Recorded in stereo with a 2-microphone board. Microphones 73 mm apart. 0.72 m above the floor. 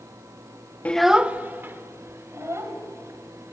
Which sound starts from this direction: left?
A child speaking, at 0.8 s.